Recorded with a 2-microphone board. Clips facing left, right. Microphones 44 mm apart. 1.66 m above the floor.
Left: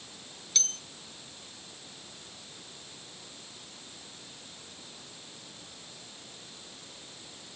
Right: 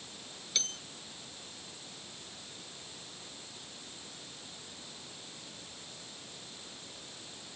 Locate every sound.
0.6 s a bell: 5° right (ahead or behind)